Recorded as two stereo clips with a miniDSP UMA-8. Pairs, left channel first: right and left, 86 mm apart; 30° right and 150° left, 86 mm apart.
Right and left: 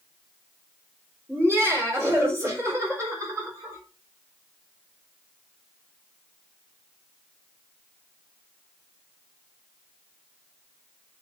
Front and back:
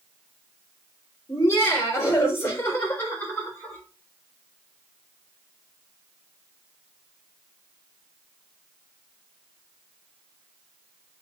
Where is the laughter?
30° left, 4 m; by 3.8 s 35° left, 5 m.